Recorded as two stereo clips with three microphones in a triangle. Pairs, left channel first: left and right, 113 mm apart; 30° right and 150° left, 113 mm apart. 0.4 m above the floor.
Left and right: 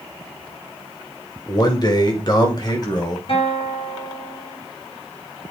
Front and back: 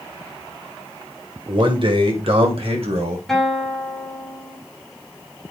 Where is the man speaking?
130° left, 1.6 m; by 3.2 s 135° left, 2.5 m.